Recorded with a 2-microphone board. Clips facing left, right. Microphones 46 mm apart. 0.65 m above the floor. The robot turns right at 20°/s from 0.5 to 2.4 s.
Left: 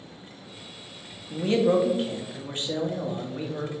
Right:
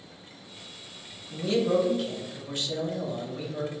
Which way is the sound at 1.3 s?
40° left (ahead or behind).